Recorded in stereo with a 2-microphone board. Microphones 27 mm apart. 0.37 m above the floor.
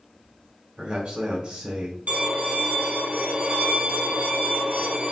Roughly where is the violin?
Right.